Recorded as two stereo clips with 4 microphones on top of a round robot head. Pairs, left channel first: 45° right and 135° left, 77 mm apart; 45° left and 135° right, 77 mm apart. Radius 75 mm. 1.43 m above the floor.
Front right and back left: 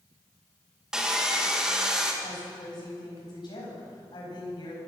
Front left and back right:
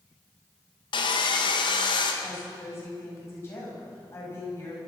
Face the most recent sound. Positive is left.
turn(degrees=-10)